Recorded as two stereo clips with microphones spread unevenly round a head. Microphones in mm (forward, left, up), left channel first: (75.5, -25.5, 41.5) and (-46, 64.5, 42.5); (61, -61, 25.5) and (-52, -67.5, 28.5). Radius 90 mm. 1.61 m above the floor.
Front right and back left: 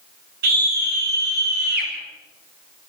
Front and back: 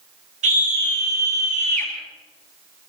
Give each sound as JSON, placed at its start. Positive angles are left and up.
{"t": 0.4, "sound": "a scream", "azimuth_deg": 165, "distance_m": 7.5}